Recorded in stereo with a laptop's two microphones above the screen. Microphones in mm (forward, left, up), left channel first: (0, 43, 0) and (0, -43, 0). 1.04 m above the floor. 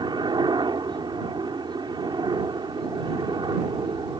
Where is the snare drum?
I don't hear a snare drum.